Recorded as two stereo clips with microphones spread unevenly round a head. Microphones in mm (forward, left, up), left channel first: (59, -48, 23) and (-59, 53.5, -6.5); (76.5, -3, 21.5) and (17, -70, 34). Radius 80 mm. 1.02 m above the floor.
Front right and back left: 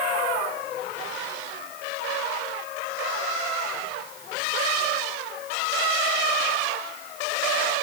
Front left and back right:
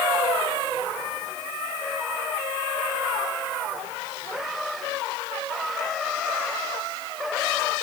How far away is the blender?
No blender in this recording.